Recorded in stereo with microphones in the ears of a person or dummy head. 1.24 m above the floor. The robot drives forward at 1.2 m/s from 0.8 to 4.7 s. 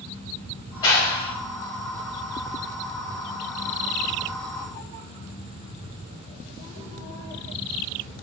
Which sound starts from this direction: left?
A clap, at 0.8 s.